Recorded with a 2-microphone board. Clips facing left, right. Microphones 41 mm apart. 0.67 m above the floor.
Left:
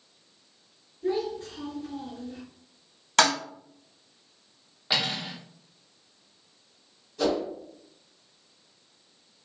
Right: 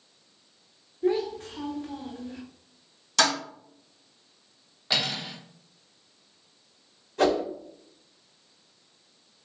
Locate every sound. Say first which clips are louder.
1.0 s a child speaking: right 2 dB; 60° right (ahead or behind), 1.0 m
3.2 s a toilet flushing: left 2 dB; 45° left (ahead or behind), 1.7 m
4.9 s cutlery clinking: even; 10° left (ahead or behind), 0.9 m
7.2 s a whoosh: right 3 dB; 50° right (ahead or behind), 0.8 m